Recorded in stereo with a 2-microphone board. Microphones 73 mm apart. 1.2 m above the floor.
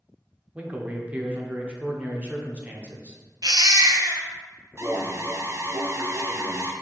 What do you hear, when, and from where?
0.6 s a man speaking: 20° right (ahead or behind), 0.7 m
3.4 s a baby crying: 60° right (ahead or behind), 0.6 m
4.8 s an alarm: 40° right (ahead or behind), 0.6 m